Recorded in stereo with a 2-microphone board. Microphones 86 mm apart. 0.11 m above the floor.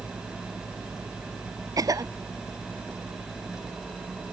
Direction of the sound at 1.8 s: 45° right (ahead or behind).